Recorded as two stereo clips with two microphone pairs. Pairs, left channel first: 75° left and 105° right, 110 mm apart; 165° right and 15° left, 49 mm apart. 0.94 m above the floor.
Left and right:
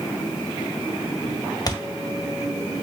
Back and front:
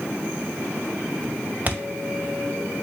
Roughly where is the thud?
Ahead left.